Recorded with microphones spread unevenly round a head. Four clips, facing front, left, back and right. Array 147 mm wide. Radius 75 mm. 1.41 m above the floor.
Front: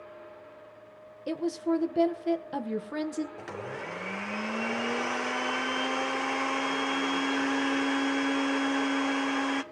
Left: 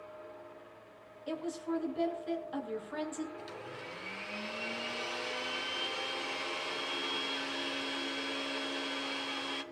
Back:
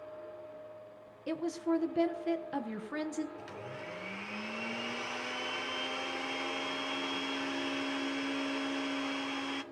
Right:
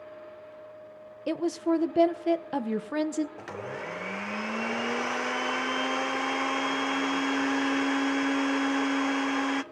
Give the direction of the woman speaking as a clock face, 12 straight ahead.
3 o'clock.